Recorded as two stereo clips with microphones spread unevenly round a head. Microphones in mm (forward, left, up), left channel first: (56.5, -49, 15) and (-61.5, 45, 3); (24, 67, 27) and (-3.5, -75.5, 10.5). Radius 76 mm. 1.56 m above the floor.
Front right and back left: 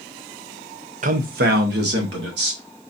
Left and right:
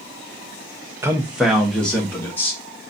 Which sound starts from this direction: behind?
A man speaking, at 1.0 s.